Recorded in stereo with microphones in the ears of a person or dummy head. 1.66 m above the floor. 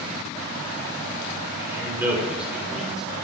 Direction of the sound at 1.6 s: 10° right (ahead or behind).